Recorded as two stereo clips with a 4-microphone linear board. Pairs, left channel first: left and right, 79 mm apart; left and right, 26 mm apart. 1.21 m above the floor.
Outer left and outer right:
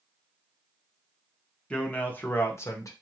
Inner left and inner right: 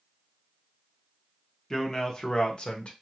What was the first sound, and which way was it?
A man speaking, 15° left (ahead or behind).